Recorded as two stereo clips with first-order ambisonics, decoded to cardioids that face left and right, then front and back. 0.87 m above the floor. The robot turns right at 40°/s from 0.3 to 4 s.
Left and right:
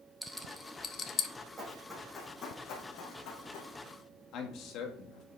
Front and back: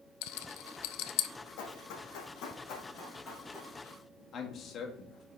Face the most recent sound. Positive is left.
turn(degrees=55)